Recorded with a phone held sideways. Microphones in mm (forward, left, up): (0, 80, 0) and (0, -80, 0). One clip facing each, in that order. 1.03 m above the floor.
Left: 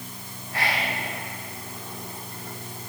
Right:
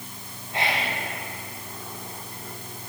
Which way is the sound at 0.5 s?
20° right (ahead or behind).